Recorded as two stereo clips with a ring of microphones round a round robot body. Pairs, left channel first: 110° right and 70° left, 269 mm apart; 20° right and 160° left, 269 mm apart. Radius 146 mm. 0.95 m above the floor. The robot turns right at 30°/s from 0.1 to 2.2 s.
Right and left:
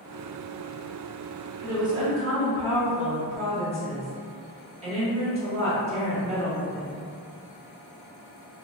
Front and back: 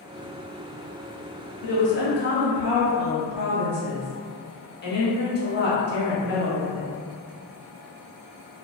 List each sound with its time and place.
1.6 s a woman speaking: 10° right, 1.1 m; by 6.9 s 10° left, 1.1 m